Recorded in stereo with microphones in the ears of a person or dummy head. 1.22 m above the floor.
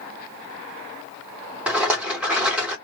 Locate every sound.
1.7 s a rattle: 5° right (ahead or behind), 1.6 m